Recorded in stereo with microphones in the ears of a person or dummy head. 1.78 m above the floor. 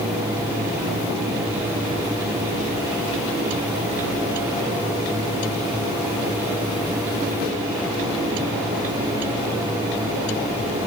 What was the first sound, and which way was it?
Only background noise.